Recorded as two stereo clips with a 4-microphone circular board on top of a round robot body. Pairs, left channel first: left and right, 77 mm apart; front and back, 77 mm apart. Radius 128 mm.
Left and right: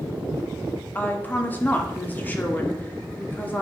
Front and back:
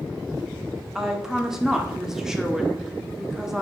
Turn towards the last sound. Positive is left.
turn(degrees=105)